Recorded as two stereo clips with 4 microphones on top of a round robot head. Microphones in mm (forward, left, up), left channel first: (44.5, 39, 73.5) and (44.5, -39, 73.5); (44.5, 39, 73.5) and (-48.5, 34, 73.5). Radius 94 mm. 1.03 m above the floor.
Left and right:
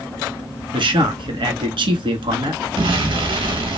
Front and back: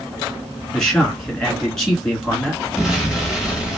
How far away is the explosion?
About 1.0 m.